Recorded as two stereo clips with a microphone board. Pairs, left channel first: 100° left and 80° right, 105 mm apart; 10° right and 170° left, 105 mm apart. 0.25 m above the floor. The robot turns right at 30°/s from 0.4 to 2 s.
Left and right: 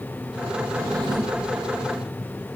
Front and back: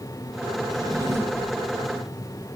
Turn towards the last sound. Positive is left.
turn(degrees=-100)